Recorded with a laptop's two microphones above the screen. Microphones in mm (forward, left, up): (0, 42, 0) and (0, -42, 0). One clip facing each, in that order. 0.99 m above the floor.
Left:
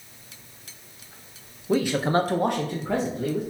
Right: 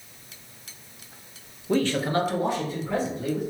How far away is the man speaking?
About 0.6 m.